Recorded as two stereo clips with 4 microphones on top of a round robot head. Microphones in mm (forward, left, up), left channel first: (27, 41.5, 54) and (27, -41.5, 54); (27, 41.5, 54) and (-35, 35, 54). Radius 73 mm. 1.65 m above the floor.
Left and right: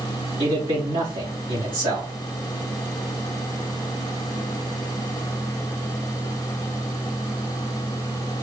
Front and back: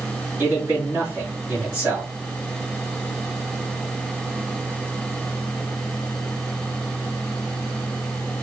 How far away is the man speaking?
About 2.5 m.